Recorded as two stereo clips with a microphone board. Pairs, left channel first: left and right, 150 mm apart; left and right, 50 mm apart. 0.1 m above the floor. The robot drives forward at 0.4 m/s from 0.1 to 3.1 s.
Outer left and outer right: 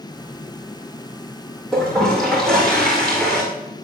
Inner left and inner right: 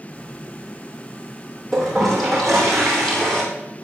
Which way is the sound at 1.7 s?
Centre (ahead or behind).